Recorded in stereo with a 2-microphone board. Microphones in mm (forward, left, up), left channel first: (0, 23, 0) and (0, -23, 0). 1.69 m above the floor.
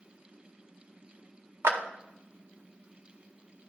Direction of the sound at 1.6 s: 60° right (ahead or behind).